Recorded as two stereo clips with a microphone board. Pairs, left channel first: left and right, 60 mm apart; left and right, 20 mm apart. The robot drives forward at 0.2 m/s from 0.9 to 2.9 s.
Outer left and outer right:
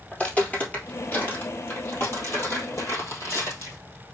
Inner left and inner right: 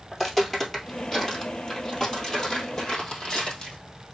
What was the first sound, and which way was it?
Footsteps, 15° left (ahead or behind).